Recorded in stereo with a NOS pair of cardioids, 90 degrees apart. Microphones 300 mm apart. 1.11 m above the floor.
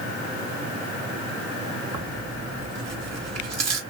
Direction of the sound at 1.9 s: 60° right.